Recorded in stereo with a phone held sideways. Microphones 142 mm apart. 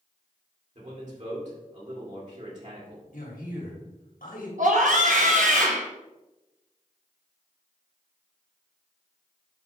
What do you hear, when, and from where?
0.8 s a man speaking: 60° right (ahead or behind), 3 m
3.1 s a man speaking: 80° left, 2 m
4.6 s a scream: 65° right (ahead or behind), 0.9 m